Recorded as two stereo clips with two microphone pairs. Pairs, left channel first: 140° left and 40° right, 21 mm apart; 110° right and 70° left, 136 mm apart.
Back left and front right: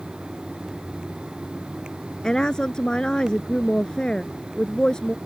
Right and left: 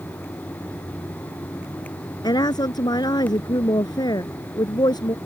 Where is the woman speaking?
170° right.